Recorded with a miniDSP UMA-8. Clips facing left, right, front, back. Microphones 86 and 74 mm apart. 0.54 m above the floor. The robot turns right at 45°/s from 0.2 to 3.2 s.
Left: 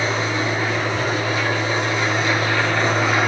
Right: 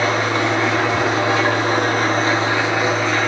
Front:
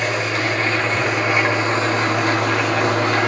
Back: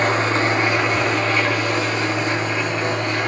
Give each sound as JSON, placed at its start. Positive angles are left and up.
{"t": 0.0, "sound": "an engine running", "azimuth_deg": -125, "distance_m": 4.0}